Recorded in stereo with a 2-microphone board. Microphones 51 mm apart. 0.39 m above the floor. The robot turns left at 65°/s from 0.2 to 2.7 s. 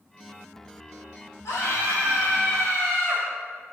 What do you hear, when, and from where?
1.4 s a scream: 85° left, 5 m; by 3.2 s 5° left, 5 m